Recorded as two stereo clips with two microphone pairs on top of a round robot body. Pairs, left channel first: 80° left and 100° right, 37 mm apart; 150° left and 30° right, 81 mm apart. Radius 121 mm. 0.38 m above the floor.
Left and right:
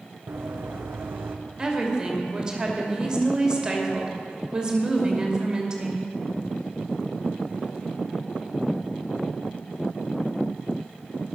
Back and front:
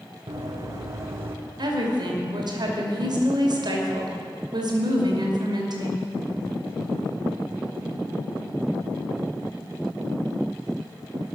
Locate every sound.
0.3 s running footsteps: 75° right, 1.8 m; by 1.4 s 90° right, 1.3 m
1.6 s a woman speaking: 40° right, 2.5 m